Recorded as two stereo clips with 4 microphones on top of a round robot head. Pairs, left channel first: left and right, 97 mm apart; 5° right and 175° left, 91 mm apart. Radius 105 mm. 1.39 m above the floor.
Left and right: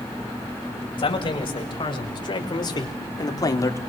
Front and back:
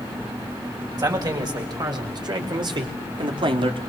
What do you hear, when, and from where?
1.0 s a man speaking: 125° left, 6.5 m; by 3.8 s 150° left, 2.5 m